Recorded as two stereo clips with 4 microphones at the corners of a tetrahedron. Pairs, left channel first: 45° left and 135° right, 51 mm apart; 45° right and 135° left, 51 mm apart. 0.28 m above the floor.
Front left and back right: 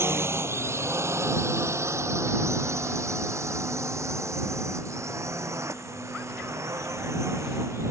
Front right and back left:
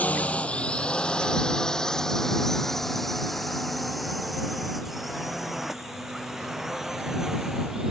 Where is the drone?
105° right; by 7.9 s 145° right.